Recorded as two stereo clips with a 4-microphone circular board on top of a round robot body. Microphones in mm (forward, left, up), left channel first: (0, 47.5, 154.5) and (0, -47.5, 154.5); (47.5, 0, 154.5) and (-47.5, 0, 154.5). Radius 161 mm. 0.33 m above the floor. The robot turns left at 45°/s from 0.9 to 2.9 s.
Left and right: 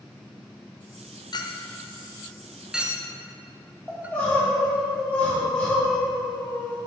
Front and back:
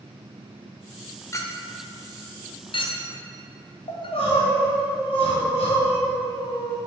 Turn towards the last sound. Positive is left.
turn(degrees=10)